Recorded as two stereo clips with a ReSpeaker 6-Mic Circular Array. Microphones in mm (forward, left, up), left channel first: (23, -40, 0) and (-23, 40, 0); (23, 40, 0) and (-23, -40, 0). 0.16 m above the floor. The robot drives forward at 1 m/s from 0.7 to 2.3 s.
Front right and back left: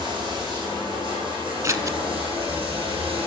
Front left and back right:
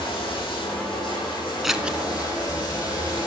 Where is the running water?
85° left, 4.5 m; by 3.3 s 105° left, 4.5 m.